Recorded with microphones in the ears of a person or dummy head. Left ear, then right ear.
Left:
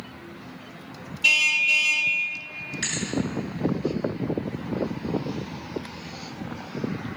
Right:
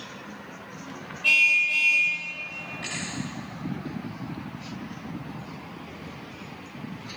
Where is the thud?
80° left, 7.5 m.